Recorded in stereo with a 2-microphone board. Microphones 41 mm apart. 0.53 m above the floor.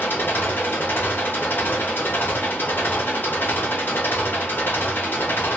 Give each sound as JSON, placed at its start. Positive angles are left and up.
{"t": 0.0, "sound": "an engine running", "side_deg": 60, "distance_m": 1.0}